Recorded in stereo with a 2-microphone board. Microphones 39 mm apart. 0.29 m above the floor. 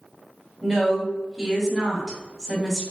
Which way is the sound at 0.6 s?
Centre (ahead or behind).